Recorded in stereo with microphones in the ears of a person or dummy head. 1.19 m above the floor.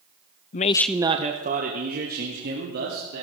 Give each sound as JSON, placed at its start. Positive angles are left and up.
{"t": 0.5, "sound": "a man speaking", "side_deg": 40, "distance_m": 0.6}